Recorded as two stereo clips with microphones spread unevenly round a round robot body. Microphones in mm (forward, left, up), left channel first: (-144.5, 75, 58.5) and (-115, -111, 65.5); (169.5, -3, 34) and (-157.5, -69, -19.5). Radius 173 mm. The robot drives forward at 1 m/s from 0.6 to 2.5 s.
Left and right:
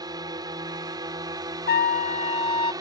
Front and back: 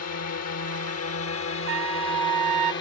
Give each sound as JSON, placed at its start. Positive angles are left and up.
{"t": 0.0, "sound": "a drone", "azimuth_deg": -15}
{"t": 1.7, "sound": "a trumpet", "azimuth_deg": 135}